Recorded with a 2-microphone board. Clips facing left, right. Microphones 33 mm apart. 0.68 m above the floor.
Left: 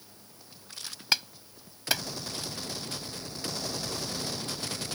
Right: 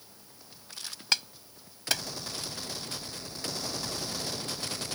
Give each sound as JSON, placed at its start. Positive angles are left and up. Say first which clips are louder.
{"t": 1.1, "sound": "a clap", "louder": "left 1 dB", "side_deg": 10}